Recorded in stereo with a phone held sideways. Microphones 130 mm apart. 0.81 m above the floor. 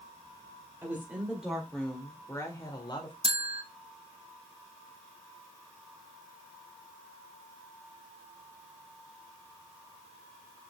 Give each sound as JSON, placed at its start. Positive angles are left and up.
{"t": 0.8, "sound": "a woman speaking", "side_deg": -20, "distance_m": 3.0}
{"t": 3.2, "sound": "a bell", "side_deg": -50, "distance_m": 1.1}